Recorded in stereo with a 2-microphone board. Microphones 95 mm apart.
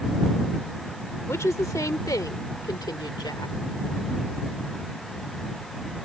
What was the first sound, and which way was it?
A woman speaking, 30° left (ahead or behind).